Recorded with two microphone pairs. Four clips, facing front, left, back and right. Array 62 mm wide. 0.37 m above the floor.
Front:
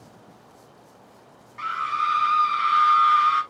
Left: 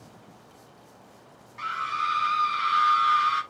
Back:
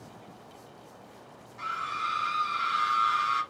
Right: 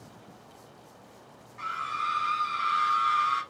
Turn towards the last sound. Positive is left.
turn(degrees=20)